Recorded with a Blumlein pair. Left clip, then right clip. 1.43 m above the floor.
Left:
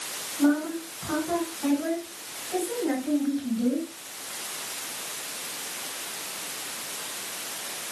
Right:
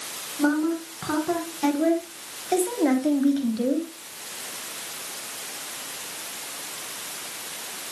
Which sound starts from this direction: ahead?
A woman speaking, at 0.4 s.